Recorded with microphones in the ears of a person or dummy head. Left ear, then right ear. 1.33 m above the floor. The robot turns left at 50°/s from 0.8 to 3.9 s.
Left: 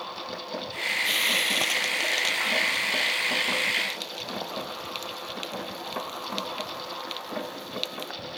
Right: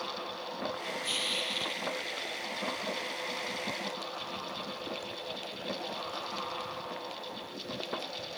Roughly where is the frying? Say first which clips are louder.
Left 7 dB; centre.